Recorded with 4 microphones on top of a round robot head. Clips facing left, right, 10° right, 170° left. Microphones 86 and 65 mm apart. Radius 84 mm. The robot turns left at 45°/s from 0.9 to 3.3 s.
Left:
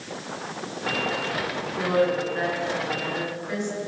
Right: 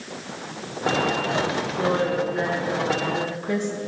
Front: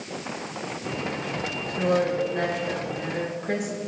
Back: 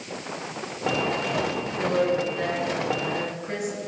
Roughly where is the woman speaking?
Ahead left.